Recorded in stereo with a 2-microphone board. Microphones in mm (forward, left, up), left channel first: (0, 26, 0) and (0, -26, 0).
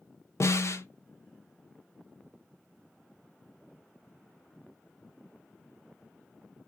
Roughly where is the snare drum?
Left.